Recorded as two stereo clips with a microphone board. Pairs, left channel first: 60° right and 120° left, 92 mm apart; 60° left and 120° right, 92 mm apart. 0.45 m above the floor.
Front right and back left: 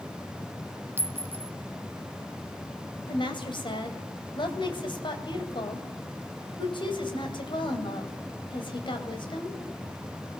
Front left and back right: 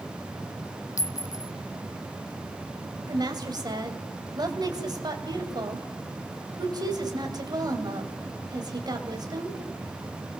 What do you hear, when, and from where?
1.0 s a clink: 75° left, 0.6 m
3.1 s a woman speaking: 80° right, 2.5 m